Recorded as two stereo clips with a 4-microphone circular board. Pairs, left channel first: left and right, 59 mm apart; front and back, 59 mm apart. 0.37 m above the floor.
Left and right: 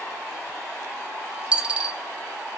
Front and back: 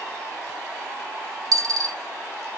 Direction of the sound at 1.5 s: 160° right.